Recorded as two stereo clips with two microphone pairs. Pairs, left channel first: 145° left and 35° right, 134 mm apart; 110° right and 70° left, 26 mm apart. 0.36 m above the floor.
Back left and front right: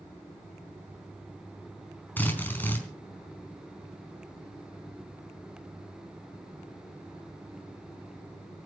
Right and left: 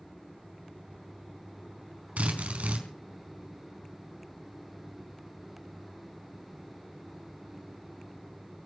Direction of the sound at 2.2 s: 70° left.